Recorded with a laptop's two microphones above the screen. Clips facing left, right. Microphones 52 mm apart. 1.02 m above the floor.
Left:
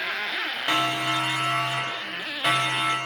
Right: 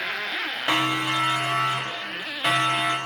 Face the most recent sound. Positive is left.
turn(degrees=-10)  # may be behind; listen again after turning